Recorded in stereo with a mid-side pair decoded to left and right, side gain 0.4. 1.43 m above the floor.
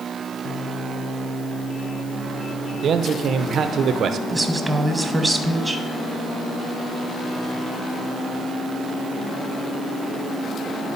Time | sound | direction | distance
2.8 | a man speaking | 65° right | 0.8 m
4.3 | a woman speaking | 15° right | 1.6 m